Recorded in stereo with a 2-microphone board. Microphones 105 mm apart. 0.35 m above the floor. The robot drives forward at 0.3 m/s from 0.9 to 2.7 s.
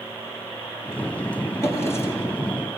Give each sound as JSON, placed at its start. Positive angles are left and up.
{"t": 1.6, "sound": "a drawer", "side_deg": 25, "distance_m": 6.0}